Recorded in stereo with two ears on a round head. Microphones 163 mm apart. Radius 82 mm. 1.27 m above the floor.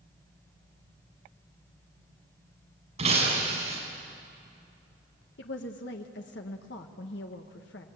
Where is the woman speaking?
70° left (ahead or behind), 1.3 m.